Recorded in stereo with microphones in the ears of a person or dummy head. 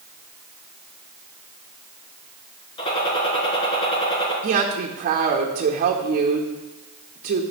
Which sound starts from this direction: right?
A woman speaking, at 4.4 s.